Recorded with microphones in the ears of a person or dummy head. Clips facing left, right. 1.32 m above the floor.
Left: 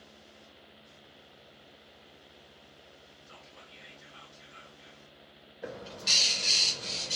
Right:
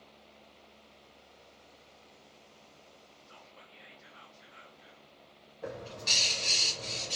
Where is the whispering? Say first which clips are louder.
Left 2 dB; 45° left (ahead or behind), 1.0 m.